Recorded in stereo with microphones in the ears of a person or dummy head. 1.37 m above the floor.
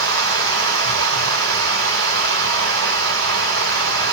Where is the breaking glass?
I don't hear breaking glass.